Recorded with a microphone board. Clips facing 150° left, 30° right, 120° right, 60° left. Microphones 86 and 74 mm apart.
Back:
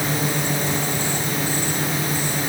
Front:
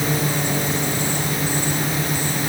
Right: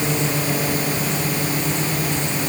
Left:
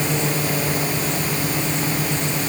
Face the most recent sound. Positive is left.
No sound to turn to.